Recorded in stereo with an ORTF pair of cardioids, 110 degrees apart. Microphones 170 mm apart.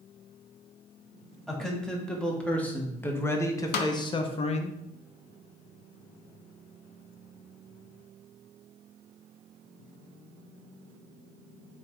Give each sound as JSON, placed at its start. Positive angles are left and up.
{"t": 1.5, "sound": "a man speaking", "azimuth_deg": 0, "distance_m": 2.5}
{"t": 3.7, "sound": "a snare drum", "azimuth_deg": 70, "distance_m": 0.9}